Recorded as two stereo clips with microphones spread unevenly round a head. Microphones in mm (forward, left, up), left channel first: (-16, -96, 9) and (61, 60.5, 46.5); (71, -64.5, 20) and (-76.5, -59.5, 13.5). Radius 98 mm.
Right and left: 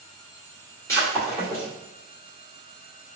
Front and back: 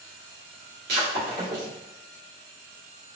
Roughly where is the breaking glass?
Behind.